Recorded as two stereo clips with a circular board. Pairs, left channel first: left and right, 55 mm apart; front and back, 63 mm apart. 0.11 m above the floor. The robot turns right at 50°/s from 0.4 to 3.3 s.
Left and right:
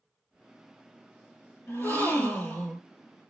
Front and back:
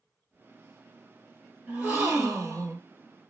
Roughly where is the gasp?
Behind left.